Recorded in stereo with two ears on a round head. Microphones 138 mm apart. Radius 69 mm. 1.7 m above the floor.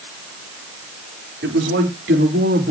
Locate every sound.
1.4 s a man speaking: 85° right, 4 m; by 2.7 s 65° right (ahead or behind), 3.5 m